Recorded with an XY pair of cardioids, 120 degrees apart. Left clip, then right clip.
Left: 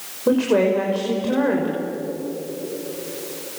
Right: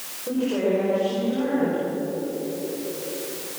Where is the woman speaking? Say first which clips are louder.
Left 6 dB; 70° left, 6 m.